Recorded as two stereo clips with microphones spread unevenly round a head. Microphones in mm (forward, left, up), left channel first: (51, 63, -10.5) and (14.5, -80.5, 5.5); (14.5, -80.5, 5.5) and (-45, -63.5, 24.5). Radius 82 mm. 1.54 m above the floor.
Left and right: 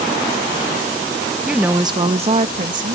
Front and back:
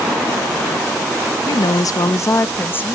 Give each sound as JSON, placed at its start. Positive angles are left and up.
{"t": 1.5, "sound": "a woman speaking", "azimuth_deg": -20}